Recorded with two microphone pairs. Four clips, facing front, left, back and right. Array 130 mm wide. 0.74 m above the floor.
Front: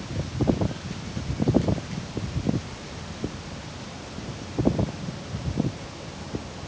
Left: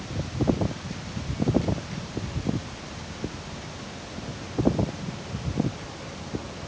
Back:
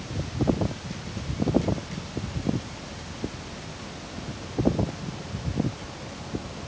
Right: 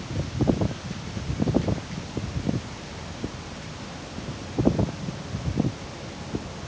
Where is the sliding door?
I don't hear a sliding door.